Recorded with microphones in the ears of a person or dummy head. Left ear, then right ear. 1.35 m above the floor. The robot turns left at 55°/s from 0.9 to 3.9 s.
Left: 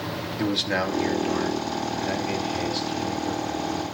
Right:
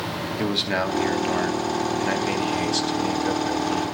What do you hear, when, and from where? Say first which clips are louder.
0.4 s a man speaking: right 1 dB; straight ahead, 3 m; by 3.9 s 165° right, 3 m